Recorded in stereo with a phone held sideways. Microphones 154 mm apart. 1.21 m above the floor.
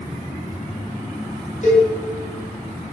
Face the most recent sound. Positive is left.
turn(degrees=50)  # may be behind; listen again after turning